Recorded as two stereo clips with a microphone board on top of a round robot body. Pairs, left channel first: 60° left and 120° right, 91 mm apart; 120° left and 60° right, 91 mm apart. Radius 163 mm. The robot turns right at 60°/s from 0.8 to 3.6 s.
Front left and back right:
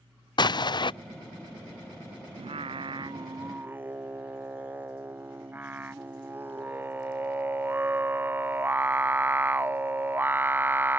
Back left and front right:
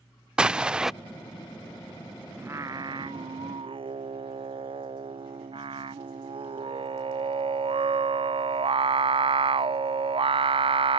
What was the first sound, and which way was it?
An explosion, 20° left.